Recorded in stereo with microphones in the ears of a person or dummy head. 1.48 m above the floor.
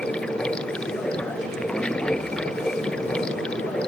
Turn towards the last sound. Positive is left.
turn(degrees=5)  # may be behind; listen again after turning